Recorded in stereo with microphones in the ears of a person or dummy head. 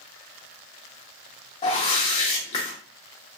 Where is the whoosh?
40° left (ahead or behind), 1.1 m.